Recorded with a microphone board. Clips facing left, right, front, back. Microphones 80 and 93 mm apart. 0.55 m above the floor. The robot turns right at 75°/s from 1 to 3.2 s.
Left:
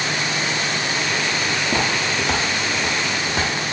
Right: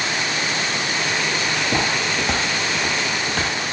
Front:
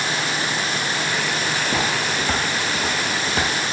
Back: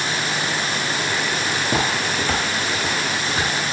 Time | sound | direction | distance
1.6 | footsteps | 150° right | 0.5 m